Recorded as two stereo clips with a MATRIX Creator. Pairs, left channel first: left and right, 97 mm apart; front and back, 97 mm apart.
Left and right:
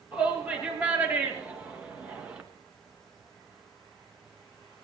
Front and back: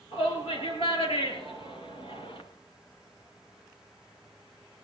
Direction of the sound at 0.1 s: 20° right.